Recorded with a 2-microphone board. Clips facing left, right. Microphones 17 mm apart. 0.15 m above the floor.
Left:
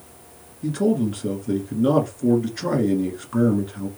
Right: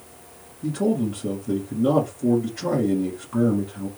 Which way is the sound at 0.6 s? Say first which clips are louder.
Left 2 dB; 45° left (ahead or behind).